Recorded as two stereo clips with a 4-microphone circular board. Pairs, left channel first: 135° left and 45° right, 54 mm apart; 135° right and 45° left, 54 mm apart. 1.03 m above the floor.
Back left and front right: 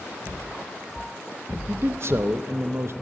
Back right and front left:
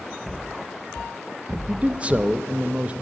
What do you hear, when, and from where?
1.7 s a man speaking: 20° right, 0.5 m